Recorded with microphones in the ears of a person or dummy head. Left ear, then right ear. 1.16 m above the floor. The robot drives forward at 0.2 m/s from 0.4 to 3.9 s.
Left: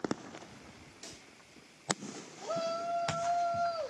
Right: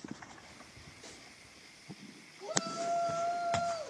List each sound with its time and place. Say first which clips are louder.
1.0 s a pop: left 2 dB; 50° left (ahead or behind), 3.5 m; by 1.3 s 55° left (ahead or behind), 3.5 m
2.4 s a shout: left 1 dB; 80° left, 2.0 m; by 3.9 s 85° left, 1.9 m